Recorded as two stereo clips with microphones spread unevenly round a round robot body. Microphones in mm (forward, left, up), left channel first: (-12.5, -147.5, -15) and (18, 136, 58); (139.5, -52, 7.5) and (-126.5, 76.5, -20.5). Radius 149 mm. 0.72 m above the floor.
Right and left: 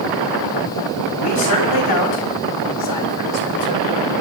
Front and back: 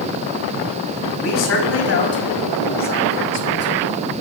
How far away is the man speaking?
About 4.5 m.